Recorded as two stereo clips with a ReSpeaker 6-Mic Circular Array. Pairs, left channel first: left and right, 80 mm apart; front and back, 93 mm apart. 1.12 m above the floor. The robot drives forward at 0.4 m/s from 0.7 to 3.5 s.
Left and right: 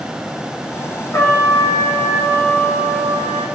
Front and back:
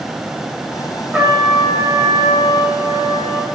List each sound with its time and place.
1.1 s a trumpet: 110° left, 0.7 m; by 3.5 s 160° left, 1.3 m